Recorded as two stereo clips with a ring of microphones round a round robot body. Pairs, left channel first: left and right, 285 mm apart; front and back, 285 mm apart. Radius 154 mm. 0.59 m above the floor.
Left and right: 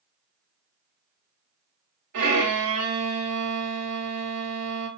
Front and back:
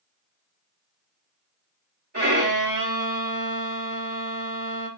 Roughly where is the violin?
Behind right.